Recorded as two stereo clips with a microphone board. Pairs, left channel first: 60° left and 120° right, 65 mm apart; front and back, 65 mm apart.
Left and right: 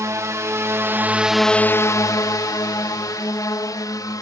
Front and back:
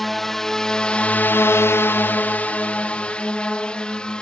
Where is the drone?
85° right; by 4.2 s 75° left.